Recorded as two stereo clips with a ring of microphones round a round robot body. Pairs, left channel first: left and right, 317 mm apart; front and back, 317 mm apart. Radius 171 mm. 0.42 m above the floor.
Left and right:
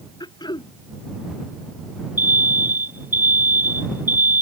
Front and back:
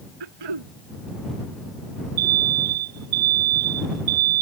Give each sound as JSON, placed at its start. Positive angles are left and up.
{"t": 0.2, "sound": "throat clearing", "azimuth_deg": 165}
{"t": 2.2, "sound": "an alarm", "azimuth_deg": -175}